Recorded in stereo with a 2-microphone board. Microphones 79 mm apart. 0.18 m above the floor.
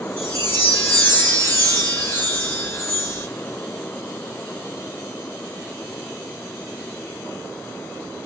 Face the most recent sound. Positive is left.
turn(degrees=30)  # may be behind; listen again after turning